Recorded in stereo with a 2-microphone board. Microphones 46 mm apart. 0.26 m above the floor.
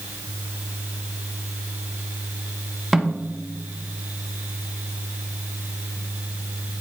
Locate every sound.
2.9 s a snare drum: 5° right (ahead or behind), 1.0 m